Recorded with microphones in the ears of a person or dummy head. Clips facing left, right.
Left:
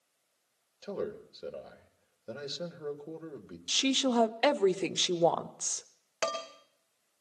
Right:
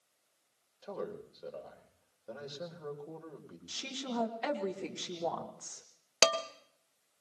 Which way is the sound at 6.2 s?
55° right (ahead or behind).